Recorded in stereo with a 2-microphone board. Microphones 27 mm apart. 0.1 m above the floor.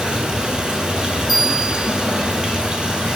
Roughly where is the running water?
Right.